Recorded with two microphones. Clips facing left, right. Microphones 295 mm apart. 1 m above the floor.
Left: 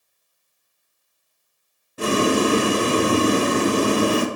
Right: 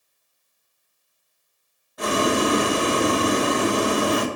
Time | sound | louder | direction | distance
2.0 | boiling | left 3 dB | 35° left (ahead or behind) | 0.9 m